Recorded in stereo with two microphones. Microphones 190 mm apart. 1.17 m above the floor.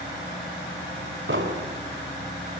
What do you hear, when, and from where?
1.3 s an explosion: 85° right, 3 m